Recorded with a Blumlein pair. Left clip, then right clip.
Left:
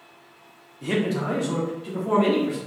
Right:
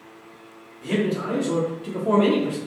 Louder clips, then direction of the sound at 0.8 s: Even; 25° left.